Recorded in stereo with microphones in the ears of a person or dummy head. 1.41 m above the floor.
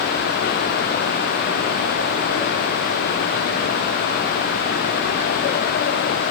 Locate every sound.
Only background noise.